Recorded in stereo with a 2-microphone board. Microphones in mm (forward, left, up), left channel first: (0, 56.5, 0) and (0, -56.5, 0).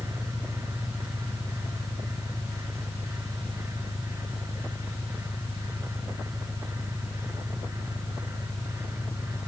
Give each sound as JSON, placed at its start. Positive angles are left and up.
{"t": 0.0, "sound": "an engine running", "side_deg": 40}